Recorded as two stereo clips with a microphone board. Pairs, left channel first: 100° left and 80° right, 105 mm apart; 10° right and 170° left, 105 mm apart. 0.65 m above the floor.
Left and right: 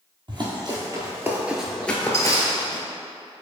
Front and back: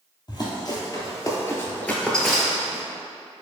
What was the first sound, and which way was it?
Running footsteps, 50° right.